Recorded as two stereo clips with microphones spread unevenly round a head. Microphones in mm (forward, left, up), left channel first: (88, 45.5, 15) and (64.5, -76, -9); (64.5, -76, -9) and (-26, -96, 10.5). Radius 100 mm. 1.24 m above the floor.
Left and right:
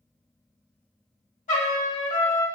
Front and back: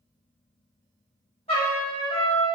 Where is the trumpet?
70° left, 1.7 m.